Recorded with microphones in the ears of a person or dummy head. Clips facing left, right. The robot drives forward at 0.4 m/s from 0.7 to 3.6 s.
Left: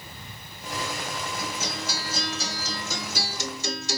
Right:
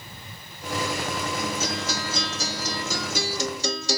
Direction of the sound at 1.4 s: 60° right (ahead or behind).